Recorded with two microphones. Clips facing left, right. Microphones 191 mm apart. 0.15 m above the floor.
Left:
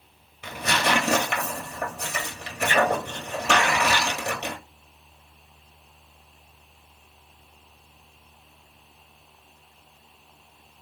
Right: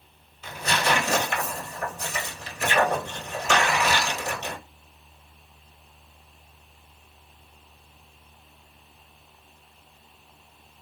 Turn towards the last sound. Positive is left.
turn(degrees=70)  # may be behind; listen again after turning